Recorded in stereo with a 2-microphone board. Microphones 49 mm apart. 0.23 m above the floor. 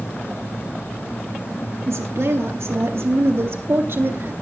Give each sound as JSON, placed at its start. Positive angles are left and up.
{"t": 1.9, "sound": "a woman speaking", "side_deg": -70, "distance_m": 3.5}